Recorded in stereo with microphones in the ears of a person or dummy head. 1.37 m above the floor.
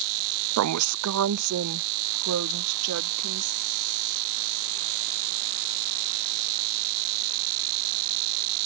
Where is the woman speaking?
80° right; by 3.6 s 75° right (ahead or behind).